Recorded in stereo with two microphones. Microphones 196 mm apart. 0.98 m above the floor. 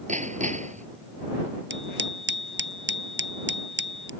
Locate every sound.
0.1 s hammering: 35° right (ahead or behind)
1.7 s a bicycle bell: 65° right (ahead or behind)